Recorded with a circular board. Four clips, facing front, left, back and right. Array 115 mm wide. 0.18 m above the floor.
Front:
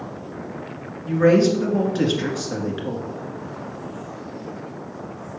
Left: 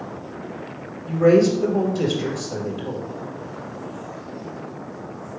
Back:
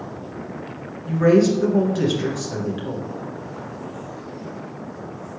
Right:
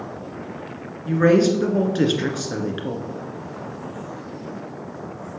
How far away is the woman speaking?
About 1.9 m.